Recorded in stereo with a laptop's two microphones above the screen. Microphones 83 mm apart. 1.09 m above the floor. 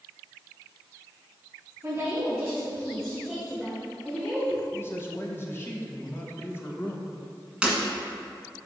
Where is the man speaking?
25° left (ahead or behind), 0.9 m.